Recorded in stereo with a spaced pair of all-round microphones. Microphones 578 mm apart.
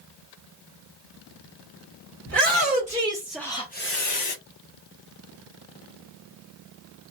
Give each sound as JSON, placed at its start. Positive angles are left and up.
{"t": 2.3, "sound": "a shout", "side_deg": -20, "distance_m": 1.0}